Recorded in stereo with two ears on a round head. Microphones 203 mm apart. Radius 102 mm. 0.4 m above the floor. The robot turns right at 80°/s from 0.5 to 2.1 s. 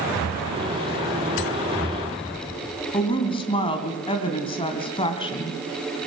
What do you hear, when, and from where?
2.9 s a woman speaking: 25° left (ahead or behind), 2.5 m